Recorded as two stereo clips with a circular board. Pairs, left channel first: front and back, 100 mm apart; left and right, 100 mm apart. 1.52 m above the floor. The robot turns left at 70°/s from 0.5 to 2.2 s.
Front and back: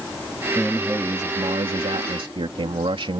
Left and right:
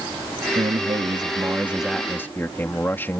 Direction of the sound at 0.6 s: 85° right.